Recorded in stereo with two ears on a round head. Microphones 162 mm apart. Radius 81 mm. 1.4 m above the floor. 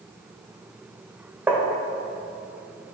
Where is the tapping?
10° right (ahead or behind), 1.3 m.